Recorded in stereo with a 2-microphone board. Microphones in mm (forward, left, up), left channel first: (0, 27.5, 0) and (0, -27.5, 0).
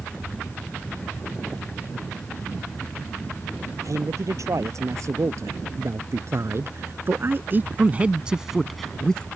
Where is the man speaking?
70° right (ahead or behind); by 9.2 s 15° left (ahead or behind).